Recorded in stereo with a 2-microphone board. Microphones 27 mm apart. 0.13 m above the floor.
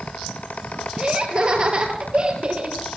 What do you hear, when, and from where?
1.0 s laughter: 35° right (ahead or behind), 3 m